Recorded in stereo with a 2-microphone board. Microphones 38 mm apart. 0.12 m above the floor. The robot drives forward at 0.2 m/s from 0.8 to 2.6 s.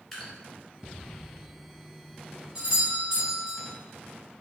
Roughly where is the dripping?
Centre.